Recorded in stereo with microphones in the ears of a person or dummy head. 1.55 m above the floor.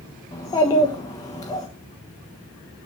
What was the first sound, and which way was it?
A child speaking, 20° left (ahead or behind).